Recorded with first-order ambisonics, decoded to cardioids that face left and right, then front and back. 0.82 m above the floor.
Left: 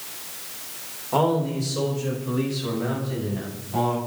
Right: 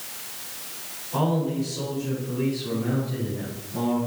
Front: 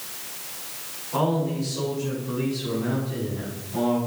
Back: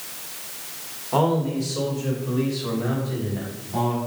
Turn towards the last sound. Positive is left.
turn(degrees=125)